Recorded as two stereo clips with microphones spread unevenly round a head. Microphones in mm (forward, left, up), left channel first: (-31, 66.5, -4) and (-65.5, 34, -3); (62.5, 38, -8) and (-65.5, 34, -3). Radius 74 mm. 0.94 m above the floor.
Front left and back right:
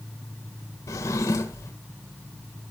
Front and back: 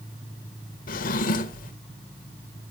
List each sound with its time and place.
0.9 s a drawer: 10° left, 1.4 m